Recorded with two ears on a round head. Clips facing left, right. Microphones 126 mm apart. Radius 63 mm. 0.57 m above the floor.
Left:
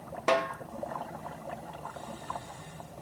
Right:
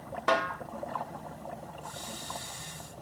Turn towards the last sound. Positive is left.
turn(degrees=20)  # may be behind; listen again after turning